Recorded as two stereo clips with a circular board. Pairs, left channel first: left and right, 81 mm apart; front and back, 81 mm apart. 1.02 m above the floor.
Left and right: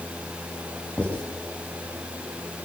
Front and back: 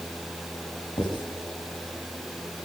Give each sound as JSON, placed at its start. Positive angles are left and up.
{"t": 1.0, "sound": "writing", "azimuth_deg": 15, "distance_m": 6.5}